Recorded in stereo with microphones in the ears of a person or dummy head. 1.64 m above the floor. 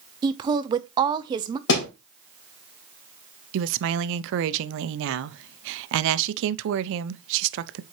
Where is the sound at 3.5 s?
70° right (ahead or behind), 0.6 m.